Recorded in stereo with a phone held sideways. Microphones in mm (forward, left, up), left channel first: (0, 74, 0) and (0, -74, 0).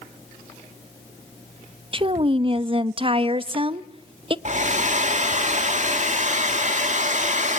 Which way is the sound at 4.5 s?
50° right (ahead or behind).